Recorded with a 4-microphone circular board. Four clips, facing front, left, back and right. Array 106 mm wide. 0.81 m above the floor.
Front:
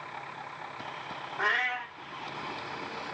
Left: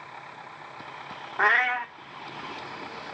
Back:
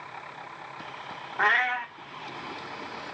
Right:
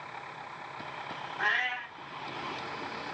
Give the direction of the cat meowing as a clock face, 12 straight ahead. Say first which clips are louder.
Left 9 dB, back 6 dB; 8 o'clock.